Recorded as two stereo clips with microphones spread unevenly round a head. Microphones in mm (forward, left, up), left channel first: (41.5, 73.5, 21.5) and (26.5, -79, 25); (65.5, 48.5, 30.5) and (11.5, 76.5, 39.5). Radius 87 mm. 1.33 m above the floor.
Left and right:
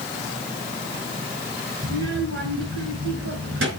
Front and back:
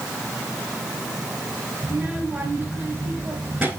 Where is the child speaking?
120° right, 4.5 m.